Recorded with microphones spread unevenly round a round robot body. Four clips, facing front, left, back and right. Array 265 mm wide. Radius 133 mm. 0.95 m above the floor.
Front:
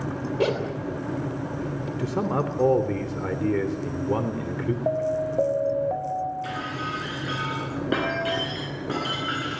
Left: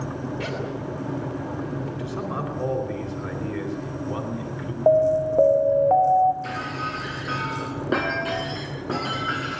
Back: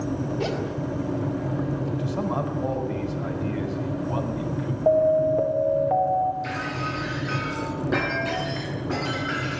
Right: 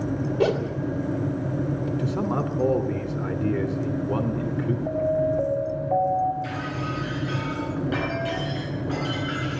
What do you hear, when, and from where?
0.4 s a zipper: 60° right, 2.5 m
2.0 s a man speaking: 25° right, 3 m
4.9 s an alarm: 100° left, 2.5 m
6.4 s breaking glass: 65° left, 6.5 m